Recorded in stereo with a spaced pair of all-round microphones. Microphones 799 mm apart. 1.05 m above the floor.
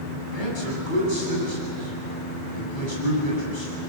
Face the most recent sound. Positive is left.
turn(degrees=75)  # may be behind; listen again after turning